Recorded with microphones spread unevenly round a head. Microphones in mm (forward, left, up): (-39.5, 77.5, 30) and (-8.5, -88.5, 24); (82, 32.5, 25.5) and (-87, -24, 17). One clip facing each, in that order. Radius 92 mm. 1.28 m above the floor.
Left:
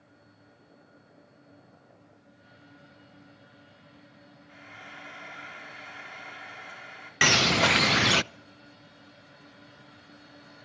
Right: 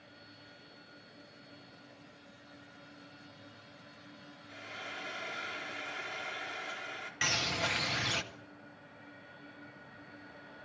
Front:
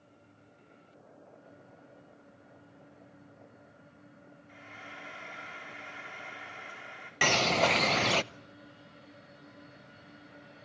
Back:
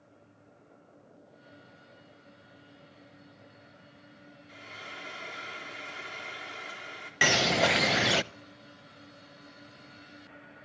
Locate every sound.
4.5 s frying: 120° right, 4 m
7.2 s a bird: 115° left, 0.6 m